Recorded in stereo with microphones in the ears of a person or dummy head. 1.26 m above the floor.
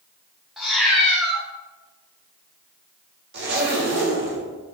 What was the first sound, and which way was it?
A cat meowing, centre (ahead or behind).